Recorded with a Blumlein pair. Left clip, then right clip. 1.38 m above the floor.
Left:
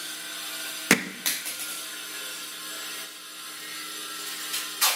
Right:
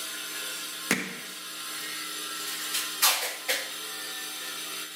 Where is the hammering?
65° left, 0.6 m.